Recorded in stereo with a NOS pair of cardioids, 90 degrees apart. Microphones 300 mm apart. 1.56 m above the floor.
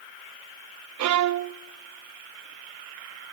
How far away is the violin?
About 0.7 m.